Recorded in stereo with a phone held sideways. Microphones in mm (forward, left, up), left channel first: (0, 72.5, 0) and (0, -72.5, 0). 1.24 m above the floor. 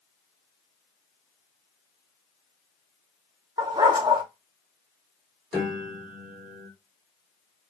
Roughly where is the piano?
Centre.